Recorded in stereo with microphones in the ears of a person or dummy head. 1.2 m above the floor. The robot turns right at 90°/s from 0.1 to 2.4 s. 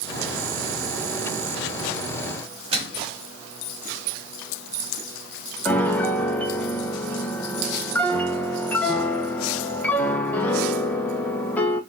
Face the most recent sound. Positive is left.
turn(degrees=10)  # may be behind; listen again after turning